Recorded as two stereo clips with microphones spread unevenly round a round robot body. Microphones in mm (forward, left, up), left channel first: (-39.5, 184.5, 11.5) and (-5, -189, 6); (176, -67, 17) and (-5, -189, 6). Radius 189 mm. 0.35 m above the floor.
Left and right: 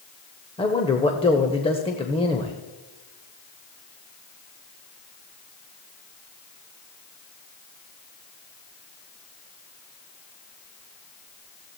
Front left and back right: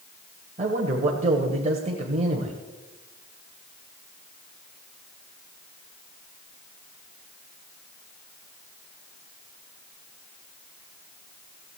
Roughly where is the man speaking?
Behind.